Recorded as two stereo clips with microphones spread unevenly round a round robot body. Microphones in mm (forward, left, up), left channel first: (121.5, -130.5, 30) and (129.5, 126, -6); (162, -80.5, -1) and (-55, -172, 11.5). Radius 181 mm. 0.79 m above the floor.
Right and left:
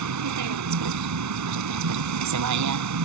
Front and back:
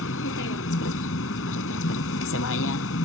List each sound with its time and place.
0.0 s a vehicle: 80° left